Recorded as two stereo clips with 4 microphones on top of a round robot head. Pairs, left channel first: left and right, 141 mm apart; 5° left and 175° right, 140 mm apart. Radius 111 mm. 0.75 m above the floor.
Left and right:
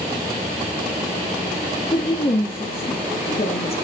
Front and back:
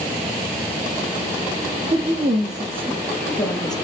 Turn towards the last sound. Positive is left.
turn(degrees=55)